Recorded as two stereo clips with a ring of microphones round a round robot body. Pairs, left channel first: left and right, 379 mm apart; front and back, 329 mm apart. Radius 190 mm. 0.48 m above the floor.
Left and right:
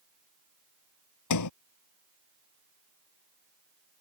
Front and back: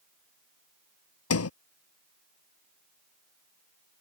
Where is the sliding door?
45° left.